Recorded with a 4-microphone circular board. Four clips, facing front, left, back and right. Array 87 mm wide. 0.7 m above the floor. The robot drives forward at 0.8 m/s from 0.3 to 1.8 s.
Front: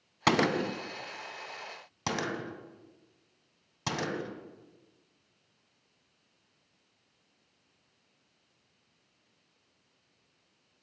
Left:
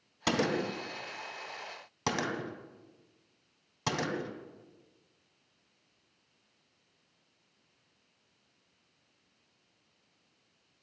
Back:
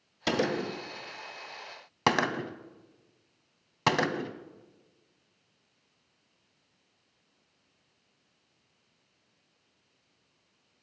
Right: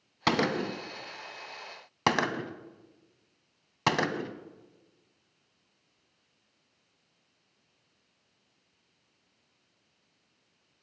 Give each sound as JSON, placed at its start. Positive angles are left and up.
{"t": 0.3, "sound": "a gunshot", "azimuth_deg": -35, "distance_m": 1.0}